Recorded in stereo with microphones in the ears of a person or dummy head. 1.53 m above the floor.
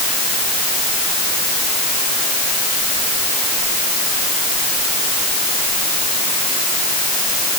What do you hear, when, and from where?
Only background noise.